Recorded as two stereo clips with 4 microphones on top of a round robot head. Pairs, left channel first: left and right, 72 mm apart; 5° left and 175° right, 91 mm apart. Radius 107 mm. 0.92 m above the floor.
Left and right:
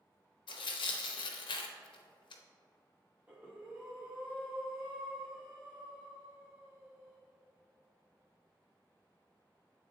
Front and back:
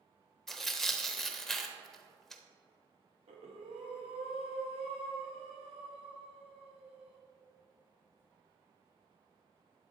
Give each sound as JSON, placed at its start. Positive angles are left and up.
{"t": 0.5, "sound": "tearing paper", "azimuth_deg": 90, "distance_m": 0.7}
{"t": 3.3, "sound": "breathing", "azimuth_deg": -165, "distance_m": 0.6}